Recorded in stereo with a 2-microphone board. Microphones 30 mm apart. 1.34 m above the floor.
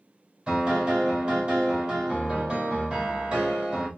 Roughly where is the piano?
Right.